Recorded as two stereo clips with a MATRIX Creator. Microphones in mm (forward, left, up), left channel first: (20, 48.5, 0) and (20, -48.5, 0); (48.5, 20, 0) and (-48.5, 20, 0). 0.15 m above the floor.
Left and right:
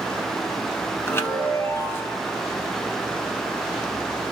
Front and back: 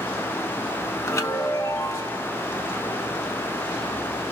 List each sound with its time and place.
1.1 s a chime: 40° left, 0.9 m